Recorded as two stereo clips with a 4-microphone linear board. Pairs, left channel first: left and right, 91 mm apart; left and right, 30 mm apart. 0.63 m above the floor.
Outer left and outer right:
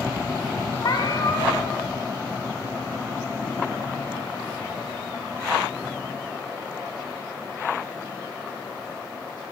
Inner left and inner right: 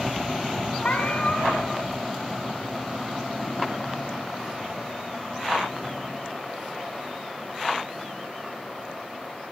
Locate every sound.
0.8 s a cat meowing: 50° left (ahead or behind), 1.1 m